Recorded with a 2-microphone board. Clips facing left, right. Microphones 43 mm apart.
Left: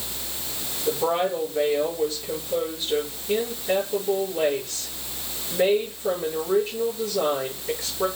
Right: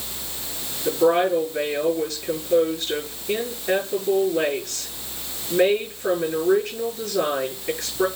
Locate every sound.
0.8 s a woman speaking: 65° right (ahead or behind), 7 m